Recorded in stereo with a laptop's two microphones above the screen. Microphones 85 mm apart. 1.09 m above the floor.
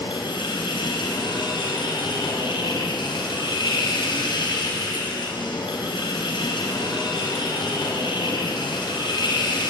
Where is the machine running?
80° left, 4.5 m.